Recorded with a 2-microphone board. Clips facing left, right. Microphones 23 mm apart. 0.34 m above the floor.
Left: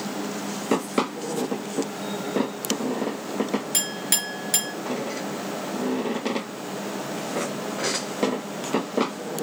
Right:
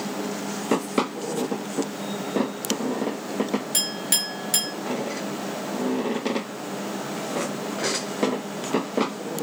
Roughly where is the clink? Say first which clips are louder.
Right 1 dB; centre.